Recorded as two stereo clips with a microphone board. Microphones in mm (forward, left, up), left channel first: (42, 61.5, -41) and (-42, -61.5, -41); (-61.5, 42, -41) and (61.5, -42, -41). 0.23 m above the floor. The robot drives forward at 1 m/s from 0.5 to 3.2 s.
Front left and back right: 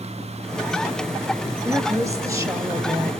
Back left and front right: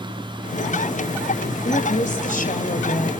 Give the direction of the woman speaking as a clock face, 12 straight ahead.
6 o'clock.